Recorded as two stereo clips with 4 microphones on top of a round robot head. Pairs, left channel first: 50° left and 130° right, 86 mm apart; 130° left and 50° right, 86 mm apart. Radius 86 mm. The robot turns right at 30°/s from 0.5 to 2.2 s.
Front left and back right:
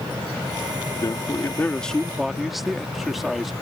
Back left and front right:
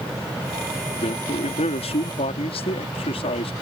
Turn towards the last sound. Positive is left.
turn(degrees=140)